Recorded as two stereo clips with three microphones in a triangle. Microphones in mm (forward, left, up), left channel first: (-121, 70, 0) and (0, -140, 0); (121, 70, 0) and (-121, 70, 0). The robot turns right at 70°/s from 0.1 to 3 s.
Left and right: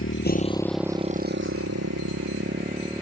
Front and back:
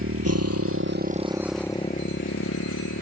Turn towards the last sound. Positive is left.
turn(degrees=15)